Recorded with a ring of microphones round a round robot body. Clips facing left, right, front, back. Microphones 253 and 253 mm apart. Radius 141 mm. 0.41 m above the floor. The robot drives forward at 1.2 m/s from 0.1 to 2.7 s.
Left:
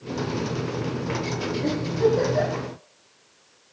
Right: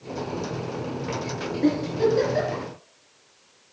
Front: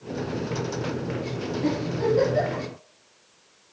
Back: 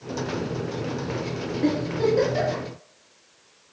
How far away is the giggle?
About 5.5 m.